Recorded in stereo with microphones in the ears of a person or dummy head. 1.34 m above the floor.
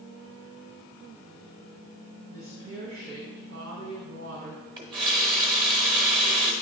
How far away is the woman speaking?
About 1.4 m.